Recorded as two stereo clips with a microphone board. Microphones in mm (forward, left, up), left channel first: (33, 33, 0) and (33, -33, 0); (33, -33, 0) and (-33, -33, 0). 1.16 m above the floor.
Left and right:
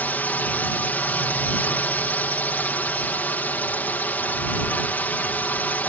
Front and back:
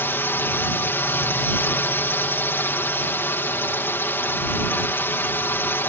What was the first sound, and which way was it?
A drone, 40° left.